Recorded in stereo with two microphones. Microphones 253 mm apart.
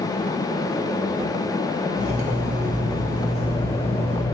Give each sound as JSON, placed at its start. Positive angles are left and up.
{"t": 1.9, "sound": "cutlery clinking", "side_deg": -70, "distance_m": 4.5}